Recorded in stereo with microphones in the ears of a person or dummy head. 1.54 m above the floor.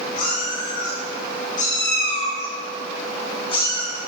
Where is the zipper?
No zipper in this recording.